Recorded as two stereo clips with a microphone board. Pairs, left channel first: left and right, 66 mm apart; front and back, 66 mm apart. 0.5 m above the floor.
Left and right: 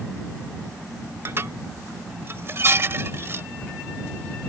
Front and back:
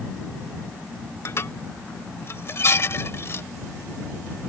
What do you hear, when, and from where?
1.2 s dishes clattering: 45° right